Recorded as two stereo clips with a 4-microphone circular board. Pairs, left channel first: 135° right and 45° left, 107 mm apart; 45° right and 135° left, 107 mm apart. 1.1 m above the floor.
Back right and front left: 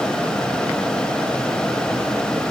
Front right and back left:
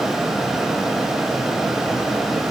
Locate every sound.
Only background noise.